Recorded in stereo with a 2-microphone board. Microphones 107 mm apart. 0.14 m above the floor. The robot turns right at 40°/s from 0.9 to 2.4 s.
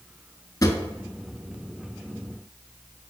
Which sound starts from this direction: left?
A drawer, at 0.6 s.